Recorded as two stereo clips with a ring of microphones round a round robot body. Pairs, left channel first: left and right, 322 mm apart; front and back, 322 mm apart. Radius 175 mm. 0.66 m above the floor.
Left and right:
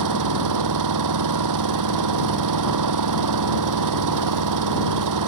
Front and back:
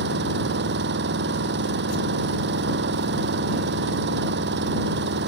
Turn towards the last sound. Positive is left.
turn(degrees=-115)